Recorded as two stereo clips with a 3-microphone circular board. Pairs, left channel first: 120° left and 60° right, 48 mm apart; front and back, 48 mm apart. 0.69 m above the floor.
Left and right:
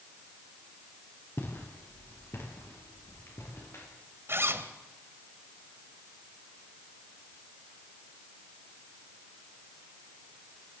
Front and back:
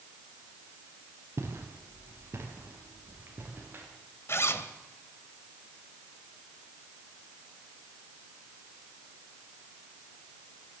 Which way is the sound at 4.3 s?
25° right.